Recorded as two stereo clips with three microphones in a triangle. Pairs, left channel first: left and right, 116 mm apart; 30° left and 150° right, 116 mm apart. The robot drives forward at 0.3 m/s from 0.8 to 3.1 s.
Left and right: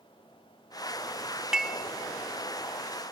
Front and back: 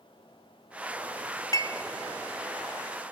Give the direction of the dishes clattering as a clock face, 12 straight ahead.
12 o'clock.